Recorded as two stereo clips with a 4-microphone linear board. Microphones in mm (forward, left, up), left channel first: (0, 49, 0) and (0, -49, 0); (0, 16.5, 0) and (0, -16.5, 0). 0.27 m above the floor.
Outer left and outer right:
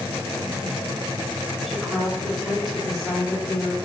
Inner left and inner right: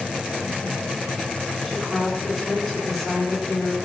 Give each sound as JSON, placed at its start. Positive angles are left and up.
{"t": 1.7, "sound": "a woman speaking", "side_deg": 0, "distance_m": 3.5}